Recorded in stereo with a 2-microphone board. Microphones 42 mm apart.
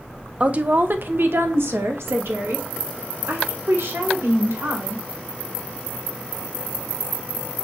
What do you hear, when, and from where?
0.4 s a woman speaking: 30° right (ahead or behind), 0.6 m; by 5.0 s 80° right, 2.5 m